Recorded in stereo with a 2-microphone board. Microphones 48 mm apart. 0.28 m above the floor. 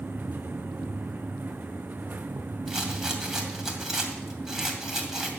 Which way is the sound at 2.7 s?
10° right (ahead or behind).